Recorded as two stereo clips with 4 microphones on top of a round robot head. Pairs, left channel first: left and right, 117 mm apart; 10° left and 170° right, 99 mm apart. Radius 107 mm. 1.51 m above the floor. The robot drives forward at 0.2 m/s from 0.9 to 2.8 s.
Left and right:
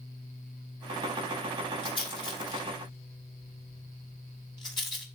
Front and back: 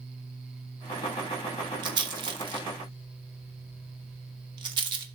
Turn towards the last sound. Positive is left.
turn(degrees=150)